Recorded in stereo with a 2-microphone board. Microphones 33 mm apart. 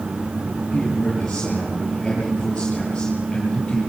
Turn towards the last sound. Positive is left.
turn(degrees=20)  # may be behind; listen again after turning